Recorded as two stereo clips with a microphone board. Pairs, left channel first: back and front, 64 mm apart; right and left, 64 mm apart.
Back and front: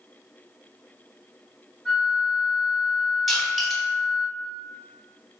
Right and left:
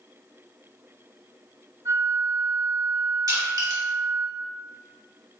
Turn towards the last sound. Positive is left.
turn(degrees=90)